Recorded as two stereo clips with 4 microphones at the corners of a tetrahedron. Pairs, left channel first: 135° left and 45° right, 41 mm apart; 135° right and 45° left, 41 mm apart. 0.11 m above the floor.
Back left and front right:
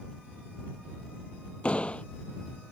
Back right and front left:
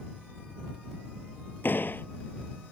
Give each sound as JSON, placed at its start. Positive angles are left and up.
{"t": 1.6, "sound": "a door slam", "azimuth_deg": -160}